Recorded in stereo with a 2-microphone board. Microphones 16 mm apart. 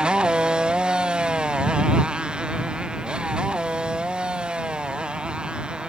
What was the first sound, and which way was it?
A motorcycle, 60° right (ahead or behind).